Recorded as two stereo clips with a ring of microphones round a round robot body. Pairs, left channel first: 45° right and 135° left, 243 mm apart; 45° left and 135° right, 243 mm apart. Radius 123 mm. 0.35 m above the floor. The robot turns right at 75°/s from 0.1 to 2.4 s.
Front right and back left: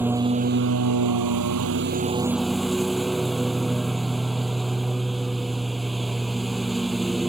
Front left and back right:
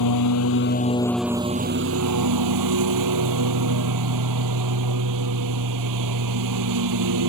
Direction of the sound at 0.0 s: 50° left.